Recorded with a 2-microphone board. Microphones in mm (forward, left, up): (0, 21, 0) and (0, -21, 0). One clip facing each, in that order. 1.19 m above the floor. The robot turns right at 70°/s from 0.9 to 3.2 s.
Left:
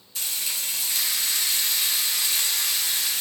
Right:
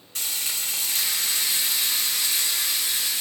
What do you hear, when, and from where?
0.1 s frying: 65° right, 1.5 m; by 3.2 s 95° left, 1.5 m